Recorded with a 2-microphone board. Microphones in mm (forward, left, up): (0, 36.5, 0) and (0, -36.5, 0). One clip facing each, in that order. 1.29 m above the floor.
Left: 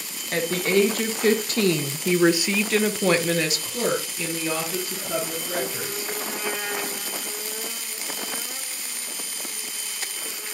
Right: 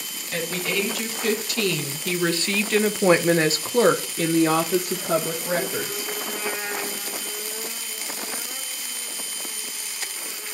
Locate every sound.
0.3 s a woman speaking: 50° left (ahead or behind), 1.5 m; by 6.1 s 85° right, 1.7 m